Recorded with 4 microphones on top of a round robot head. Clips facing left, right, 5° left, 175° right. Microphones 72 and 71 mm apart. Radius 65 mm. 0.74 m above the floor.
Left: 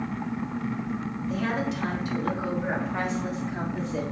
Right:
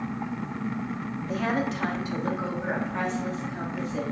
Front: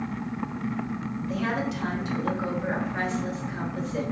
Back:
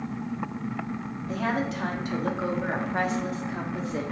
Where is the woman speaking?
120° right, 1.2 m; by 4.0 s 150° left, 1.6 m.